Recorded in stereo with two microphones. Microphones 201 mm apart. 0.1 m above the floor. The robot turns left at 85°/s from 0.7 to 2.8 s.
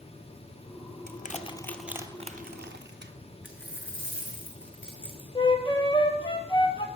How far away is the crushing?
About 0.8 m.